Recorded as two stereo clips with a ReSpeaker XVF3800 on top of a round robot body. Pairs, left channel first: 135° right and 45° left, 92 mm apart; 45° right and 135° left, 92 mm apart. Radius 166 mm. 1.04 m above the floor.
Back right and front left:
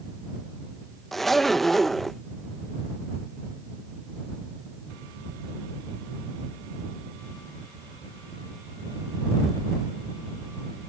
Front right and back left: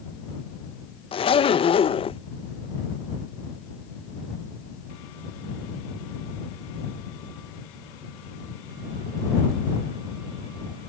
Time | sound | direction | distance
1.1 | a zipper | 50° right | ?